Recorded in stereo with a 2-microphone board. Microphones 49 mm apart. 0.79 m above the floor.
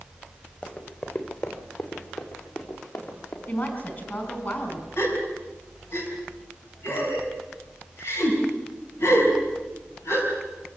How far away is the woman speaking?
About 4.5 m.